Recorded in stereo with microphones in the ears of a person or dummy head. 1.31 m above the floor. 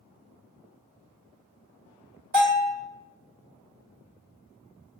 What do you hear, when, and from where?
2.3 s a bell: 55° right (ahead or behind), 1.9 m